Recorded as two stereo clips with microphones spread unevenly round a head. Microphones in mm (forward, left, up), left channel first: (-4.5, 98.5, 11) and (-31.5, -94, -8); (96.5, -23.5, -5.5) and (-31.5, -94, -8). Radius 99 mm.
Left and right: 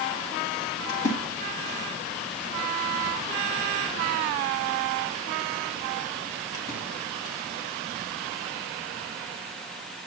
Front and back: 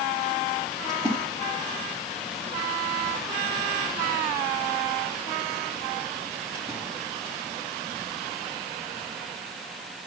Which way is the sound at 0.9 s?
100° left.